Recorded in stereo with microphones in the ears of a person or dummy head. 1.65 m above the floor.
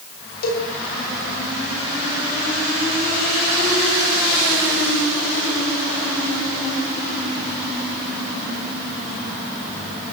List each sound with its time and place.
0.4 s a cowbell: 60° left (ahead or behind), 8.5 m